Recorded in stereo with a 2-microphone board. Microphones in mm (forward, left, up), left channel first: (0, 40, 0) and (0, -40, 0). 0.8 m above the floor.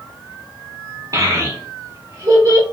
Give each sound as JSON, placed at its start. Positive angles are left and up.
{"t": 1.1, "sound": "a child speaking", "side_deg": -40, "distance_m": 1.2}